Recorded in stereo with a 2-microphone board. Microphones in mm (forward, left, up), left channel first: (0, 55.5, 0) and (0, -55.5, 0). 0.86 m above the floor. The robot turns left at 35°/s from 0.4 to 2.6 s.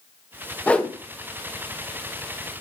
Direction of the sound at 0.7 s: 10° left (ahead or behind).